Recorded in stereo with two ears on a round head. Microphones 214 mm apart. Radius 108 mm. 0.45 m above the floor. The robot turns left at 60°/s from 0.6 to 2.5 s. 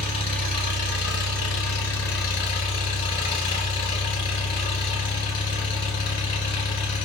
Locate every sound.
0.0 s an engine running: 155° left, 1.5 m; by 7.0 s 40° left, 1.5 m